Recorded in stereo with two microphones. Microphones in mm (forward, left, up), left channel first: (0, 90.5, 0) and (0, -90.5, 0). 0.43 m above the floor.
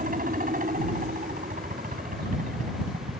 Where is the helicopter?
50° right (ahead or behind).